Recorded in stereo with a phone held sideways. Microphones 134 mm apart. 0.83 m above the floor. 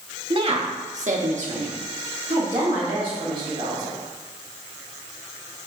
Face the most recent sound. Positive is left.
turn(degrees=-40)  # may be behind; listen again after turning